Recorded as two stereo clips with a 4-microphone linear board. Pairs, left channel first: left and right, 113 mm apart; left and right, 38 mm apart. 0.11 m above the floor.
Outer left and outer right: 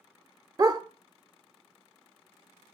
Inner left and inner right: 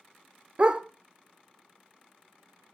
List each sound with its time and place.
0.6 s a dog barking: 35° right (ahead or behind), 0.8 m